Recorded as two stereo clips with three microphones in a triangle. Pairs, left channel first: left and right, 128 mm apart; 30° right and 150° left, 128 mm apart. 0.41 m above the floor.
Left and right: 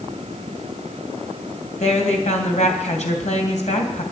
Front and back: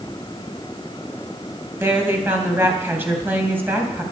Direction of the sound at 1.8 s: 80° left.